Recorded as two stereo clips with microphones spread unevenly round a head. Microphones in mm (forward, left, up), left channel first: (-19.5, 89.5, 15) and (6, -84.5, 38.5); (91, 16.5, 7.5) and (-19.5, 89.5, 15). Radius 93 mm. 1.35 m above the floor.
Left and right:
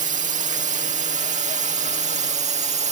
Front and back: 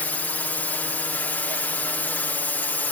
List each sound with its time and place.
0.0 s a drone: 105° right; by 2.9 s 100° right